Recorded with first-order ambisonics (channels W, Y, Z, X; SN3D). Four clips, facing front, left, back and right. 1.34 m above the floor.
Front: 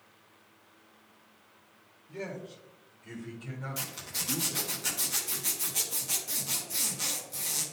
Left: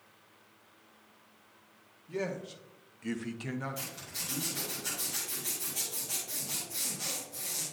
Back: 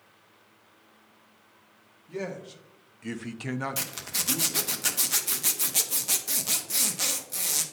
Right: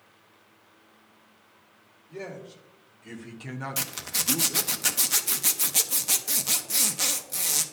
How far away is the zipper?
About 0.7 m.